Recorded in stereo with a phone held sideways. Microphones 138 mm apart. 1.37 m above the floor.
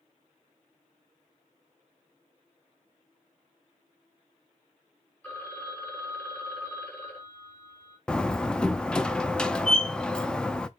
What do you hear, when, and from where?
5.2 s a phone ringing: 10° left (ahead or behind), 4 m
8.1 s a door slam: 5° left (ahead or behind), 0.7 m